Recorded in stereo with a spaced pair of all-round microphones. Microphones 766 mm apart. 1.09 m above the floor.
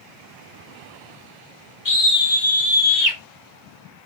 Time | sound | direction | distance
1.9 | a scream | 75° left (ahead or behind) | 1.8 m